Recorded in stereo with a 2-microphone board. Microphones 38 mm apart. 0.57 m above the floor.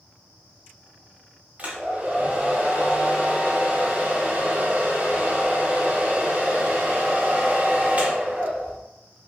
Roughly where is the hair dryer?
Right.